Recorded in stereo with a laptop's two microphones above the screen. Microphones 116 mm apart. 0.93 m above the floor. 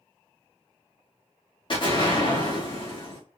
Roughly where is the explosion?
Left.